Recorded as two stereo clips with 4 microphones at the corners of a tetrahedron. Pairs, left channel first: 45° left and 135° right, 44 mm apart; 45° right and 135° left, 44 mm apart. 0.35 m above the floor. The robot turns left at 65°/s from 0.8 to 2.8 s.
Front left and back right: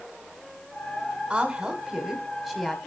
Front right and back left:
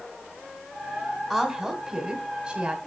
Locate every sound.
1.3 s a woman speaking: 155° right, 1.5 m; by 2.8 s 110° left, 1.5 m